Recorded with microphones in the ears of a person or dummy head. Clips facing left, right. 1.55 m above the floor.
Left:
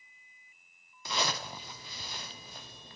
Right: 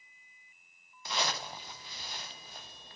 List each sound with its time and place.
1.1 s a zipper: 70° left (ahead or behind), 0.7 m